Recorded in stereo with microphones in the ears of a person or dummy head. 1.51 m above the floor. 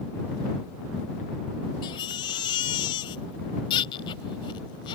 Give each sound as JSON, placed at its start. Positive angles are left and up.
{"t": 1.8, "sound": "a baby crying", "side_deg": 25}